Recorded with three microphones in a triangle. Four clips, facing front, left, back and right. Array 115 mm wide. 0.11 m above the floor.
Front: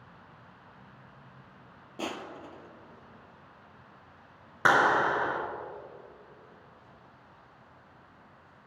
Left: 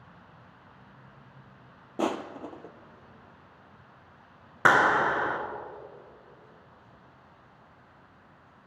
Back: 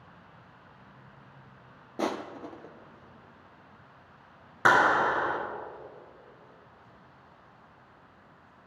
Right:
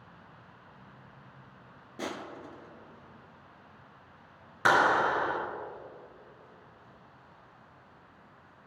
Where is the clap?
95° left, 1.5 m.